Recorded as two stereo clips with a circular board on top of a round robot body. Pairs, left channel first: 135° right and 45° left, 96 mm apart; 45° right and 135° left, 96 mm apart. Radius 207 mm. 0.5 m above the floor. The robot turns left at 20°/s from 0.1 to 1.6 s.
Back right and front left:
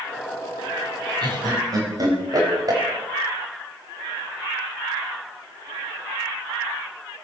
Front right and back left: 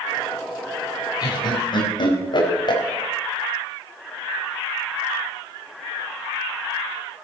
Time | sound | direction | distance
1.2 | laughter | 5° left | 4.5 m